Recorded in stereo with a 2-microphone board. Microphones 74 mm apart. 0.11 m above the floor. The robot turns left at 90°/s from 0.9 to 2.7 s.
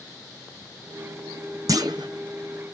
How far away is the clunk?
About 0.7 m.